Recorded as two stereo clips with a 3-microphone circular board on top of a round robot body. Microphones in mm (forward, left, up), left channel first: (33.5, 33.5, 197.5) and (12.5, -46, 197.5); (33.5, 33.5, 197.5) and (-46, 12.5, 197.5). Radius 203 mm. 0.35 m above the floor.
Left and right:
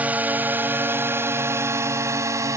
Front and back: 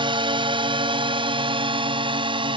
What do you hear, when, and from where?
0.0 s a drone: 175° right; by 2.6 s 155° right